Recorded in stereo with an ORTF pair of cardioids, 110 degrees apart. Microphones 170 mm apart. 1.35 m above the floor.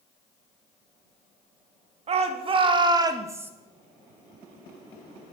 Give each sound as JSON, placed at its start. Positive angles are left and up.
{"t": 2.1, "sound": "a shout", "azimuth_deg": -40, "distance_m": 3.5}